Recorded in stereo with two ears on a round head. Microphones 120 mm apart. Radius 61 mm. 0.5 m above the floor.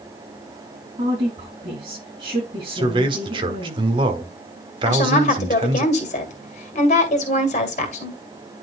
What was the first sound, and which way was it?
A woman speaking, 40° right (ahead or behind).